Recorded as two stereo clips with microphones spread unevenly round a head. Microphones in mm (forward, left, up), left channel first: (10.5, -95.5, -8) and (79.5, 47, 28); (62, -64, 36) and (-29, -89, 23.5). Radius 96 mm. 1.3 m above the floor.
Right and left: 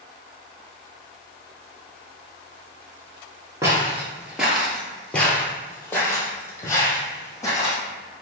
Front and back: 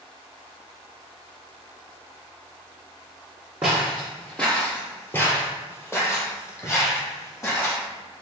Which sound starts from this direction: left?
Footsteps, at 3.6 s.